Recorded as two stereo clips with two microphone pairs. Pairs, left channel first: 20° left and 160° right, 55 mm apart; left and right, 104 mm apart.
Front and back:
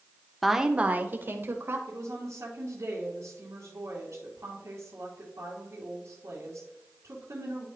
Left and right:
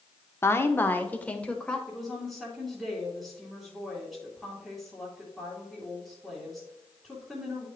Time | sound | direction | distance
0.4 | a woman speaking | 105° left | 0.7 m
1.9 | a woman speaking | straight behind | 3 m